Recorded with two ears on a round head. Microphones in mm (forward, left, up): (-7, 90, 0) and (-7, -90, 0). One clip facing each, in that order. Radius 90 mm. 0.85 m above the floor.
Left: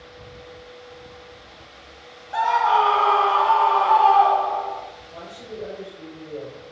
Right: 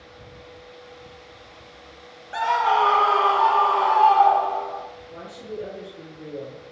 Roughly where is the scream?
Right.